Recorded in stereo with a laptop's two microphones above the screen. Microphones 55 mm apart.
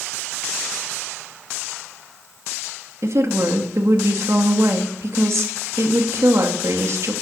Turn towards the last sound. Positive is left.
turn(degrees=-60)  # may be behind; listen again after turning